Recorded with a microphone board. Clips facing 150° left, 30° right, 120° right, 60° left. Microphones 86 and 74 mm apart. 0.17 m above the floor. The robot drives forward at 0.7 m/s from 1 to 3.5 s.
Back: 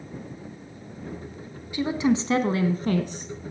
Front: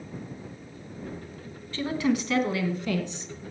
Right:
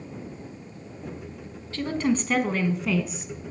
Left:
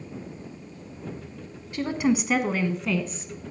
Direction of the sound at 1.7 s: 95° left.